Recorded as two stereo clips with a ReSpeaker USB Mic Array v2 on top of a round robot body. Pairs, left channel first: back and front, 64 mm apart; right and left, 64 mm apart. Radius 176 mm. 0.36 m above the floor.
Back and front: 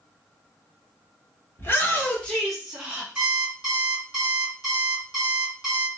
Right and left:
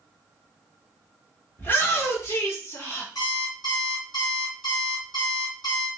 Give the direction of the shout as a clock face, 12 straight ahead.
5 o'clock.